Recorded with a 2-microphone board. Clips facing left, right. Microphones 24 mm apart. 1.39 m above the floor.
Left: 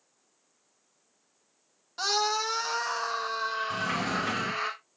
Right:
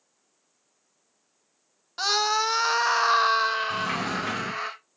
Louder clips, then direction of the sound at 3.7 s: Right 2 dB; 20° right (ahead or behind).